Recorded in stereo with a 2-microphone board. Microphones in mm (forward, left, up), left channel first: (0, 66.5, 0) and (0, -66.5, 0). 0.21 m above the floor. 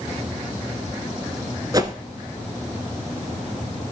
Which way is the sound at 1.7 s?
30° right (ahead or behind).